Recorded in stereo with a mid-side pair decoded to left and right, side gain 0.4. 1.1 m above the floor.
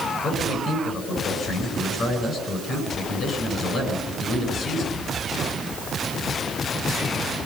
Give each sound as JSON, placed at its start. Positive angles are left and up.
{"t": 0.2, "sound": "a man speaking", "azimuth_deg": 65, "distance_m": 9.5}